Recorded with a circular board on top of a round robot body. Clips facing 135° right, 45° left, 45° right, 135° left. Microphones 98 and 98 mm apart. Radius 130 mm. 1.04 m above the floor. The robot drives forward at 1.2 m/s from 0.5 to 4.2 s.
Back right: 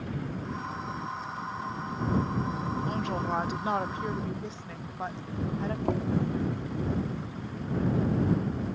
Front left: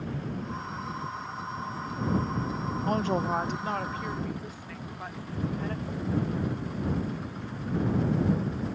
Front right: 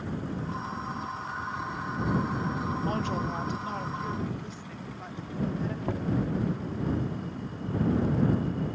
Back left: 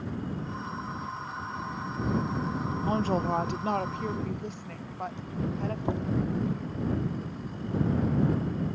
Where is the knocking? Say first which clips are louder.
Back right 4 dB, even; 155° right.